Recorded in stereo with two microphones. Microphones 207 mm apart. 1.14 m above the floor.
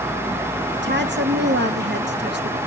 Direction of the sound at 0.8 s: 60° right (ahead or behind).